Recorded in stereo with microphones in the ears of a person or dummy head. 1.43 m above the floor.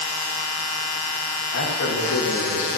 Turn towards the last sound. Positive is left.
turn(degrees=80)